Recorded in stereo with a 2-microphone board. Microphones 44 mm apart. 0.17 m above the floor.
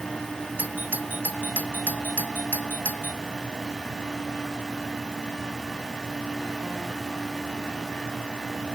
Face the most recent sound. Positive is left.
turn(degrees=-45)  # may be behind; listen again after turning